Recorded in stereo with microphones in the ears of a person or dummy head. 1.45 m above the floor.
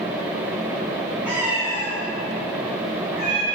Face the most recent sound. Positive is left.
turn(degrees=-35)  # may be behind; listen again after turning